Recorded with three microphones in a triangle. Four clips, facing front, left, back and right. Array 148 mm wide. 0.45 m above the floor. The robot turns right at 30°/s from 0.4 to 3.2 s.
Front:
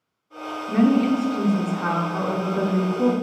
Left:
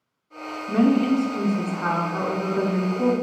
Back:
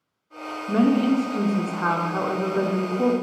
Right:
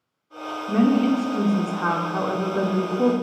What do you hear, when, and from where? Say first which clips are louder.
0.7 s a woman speaking: even, front 1 dB; straight behind, 0.7 m; by 3.1 s 105° right, 0.7 m